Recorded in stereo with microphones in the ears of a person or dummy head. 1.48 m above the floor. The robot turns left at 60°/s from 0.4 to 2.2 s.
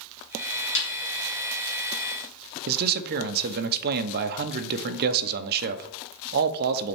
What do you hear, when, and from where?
0.8 s a snare drum: 75° left (ahead or behind), 3 m; by 0.9 s 65° left (ahead or behind), 3 m
2.7 s a man speaking: 55° right (ahead or behind), 0.8 m